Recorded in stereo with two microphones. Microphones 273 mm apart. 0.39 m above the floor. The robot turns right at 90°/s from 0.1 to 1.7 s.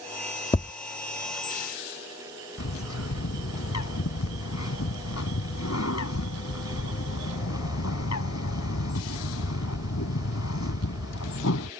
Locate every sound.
0.5 s tapping: 20° left (ahead or behind); by 0.7 s 5° left (ahead or behind)
2.6 s a bird: 75° left (ahead or behind)